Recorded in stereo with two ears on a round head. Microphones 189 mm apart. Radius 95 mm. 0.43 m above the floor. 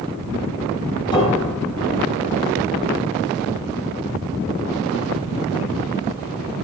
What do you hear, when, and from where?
1.1 s a piano: 20° left (ahead or behind), 4 m